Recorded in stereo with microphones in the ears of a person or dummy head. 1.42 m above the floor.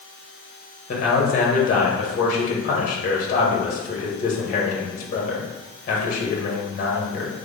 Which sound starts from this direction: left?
A man speaking, at 0.9 s.